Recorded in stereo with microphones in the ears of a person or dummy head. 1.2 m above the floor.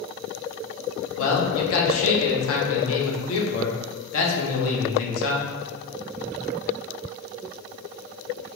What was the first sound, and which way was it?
A man speaking, 70° left (ahead or behind).